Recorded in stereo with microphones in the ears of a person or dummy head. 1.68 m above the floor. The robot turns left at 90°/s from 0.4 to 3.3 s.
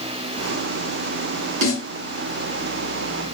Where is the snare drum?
80° right, 1.6 m.